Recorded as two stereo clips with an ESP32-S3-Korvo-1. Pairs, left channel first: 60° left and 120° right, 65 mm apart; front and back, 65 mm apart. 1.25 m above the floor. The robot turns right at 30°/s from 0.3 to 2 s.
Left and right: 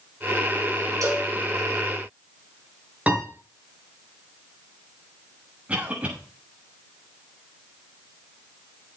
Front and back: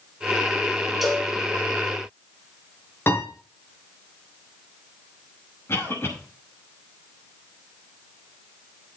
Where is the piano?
55° right, 5.5 m.